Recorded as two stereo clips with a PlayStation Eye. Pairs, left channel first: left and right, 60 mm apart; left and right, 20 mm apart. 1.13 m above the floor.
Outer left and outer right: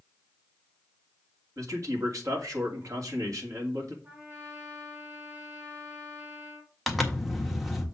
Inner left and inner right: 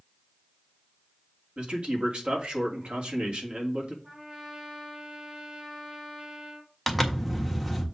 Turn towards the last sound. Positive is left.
turn(degrees=0)  # may be behind; listen again after turning